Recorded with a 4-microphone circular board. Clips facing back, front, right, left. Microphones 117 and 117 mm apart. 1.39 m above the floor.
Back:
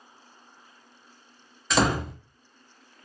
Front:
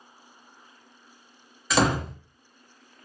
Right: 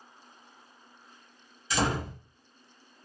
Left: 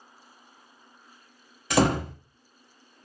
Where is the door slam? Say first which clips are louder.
Front 1 dB, left 7 dB; 90° left, 0.6 m.